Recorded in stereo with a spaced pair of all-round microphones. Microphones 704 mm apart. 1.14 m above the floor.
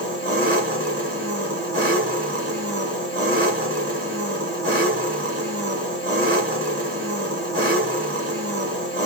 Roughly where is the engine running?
Centre.